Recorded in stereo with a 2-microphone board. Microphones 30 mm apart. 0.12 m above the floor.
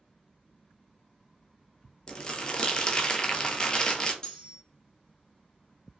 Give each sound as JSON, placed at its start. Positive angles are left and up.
{"t": 2.1, "sound": "crumpling", "side_deg": 25, "distance_m": 0.5}
{"t": 4.2, "sound": "cutlery clinking", "side_deg": 20, "distance_m": 0.7}